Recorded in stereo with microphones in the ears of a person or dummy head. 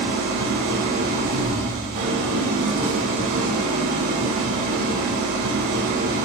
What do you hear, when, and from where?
0.0 s an engine running: 50° right (ahead or behind), 1.8 m